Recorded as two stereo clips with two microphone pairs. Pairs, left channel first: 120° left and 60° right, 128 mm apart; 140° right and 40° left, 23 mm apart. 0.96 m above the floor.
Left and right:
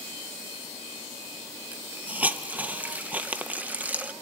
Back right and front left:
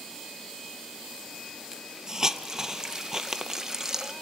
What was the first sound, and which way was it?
A hiss, 5° left.